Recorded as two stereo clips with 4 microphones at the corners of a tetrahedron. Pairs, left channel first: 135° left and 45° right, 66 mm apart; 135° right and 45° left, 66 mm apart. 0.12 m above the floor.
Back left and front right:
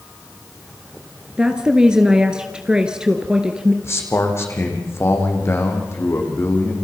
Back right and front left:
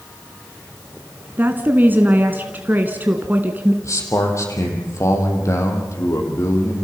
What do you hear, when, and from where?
1.4 s a woman speaking: 20° left, 1.5 m
3.8 s a man speaking: straight behind, 5 m